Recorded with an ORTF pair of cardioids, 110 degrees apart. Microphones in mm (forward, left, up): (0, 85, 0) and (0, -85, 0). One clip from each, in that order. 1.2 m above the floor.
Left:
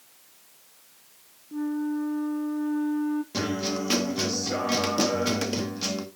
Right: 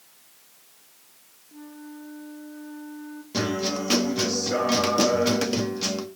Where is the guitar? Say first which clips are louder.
Right 2 dB; 5° right, 1.5 m.